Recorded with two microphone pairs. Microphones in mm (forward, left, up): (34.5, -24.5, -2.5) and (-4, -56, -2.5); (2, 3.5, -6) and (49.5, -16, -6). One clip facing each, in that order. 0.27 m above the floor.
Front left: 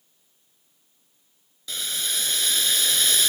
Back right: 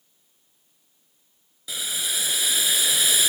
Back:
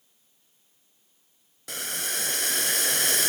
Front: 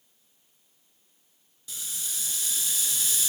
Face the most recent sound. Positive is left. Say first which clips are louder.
# even, back 9 dB
turn(degrees=135)